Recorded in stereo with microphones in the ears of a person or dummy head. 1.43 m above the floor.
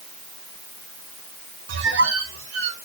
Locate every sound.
1.7 s a squeak: 75° right (ahead or behind), 2.5 m